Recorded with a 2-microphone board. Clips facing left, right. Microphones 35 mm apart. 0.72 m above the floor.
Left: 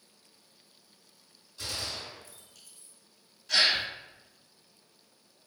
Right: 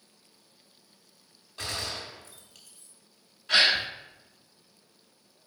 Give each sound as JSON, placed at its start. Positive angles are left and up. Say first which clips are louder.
{"t": 1.6, "sound": "a gunshot", "louder": "right 2 dB", "side_deg": -55, "distance_m": 0.8}
{"t": 3.5, "sound": "a gasp", "louder": "right 3 dB", "side_deg": -35, "distance_m": 0.5}